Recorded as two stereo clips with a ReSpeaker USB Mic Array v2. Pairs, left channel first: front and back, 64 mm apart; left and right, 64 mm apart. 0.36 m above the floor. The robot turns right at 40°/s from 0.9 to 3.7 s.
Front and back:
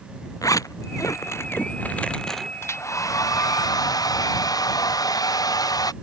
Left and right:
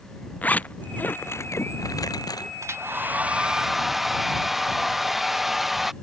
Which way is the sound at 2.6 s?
45° right.